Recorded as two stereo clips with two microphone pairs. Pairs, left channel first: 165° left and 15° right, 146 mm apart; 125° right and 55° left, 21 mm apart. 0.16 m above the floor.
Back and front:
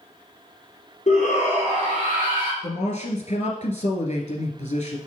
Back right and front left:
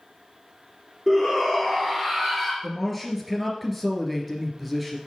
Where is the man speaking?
140° left, 2 m.